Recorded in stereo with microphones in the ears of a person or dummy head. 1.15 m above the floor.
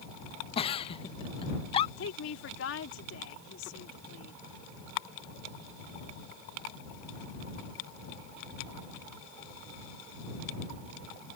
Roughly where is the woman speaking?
Left.